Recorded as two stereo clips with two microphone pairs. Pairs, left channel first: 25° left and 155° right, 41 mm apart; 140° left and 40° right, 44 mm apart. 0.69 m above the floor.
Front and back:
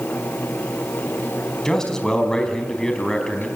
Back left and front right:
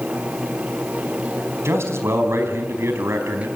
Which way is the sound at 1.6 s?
50° right.